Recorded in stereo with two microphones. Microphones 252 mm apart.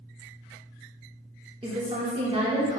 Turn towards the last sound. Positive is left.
turn(degrees=-20)  # may be behind; listen again after turning